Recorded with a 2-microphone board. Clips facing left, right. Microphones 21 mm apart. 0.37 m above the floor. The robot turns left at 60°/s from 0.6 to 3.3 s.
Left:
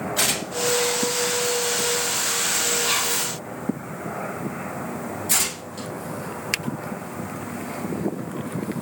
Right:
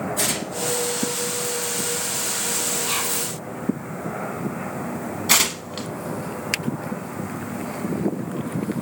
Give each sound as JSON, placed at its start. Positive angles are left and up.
{"t": 0.2, "sound": "tearing paper", "side_deg": 50, "distance_m": 1.8}
{"t": 2.9, "sound": "whispering", "side_deg": 20, "distance_m": 1.2}
{"t": 5.3, "sound": "tearing paper", "side_deg": -55, "distance_m": 1.0}